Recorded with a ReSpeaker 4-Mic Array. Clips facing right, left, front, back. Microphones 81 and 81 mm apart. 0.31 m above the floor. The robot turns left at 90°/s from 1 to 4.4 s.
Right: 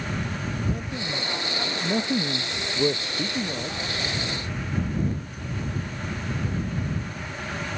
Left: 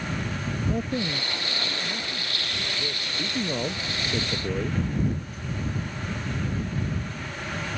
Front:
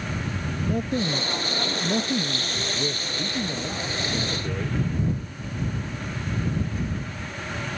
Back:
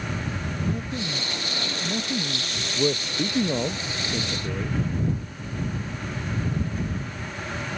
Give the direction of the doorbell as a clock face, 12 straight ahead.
No doorbell in this recording.